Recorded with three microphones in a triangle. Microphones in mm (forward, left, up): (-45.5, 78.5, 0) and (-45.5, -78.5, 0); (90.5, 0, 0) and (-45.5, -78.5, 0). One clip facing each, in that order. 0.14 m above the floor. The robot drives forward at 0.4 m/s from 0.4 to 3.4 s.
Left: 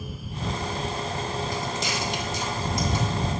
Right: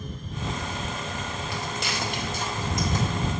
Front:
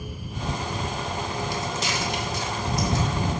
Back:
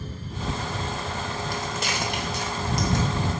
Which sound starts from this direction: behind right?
Footsteps, at 1.5 s.